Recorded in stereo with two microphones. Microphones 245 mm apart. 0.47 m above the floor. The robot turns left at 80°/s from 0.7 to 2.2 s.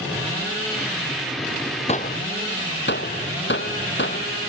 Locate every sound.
1.9 s a gunshot: 25° left (ahead or behind); by 4.5 s 50° left (ahead or behind)